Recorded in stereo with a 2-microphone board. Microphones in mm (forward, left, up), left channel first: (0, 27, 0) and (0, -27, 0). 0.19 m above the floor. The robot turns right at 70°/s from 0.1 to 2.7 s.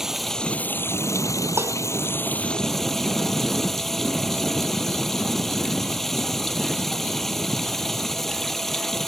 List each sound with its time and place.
0.0 s running water: 5° right; by 9.1 s 175° left
1.6 s dishes clattering: 45° right (ahead or behind); by 1.8 s 60° right (ahead or behind)